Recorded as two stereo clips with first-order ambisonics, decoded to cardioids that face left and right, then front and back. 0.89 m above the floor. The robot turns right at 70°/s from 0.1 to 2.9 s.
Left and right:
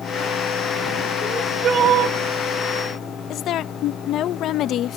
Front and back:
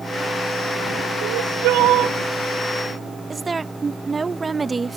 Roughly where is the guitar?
No guitar in this recording.